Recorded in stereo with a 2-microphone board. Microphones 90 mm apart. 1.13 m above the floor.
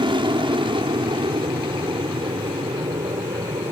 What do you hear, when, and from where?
0.0 s an aircraft: 65° right (ahead or behind); by 3.7 s 70° right (ahead or behind)